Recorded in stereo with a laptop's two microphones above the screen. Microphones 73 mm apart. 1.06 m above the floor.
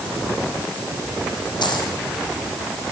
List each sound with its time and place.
1.6 s a dropped coin: 80° left, 7.5 m